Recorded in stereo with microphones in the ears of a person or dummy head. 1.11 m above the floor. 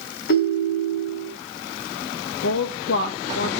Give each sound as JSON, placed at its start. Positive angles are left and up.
{"t": 0.3, "sound": "a ringtone", "side_deg": 75, "distance_m": 4.0}
{"t": 2.4, "sound": "a woman speaking", "side_deg": 70, "distance_m": 1.1}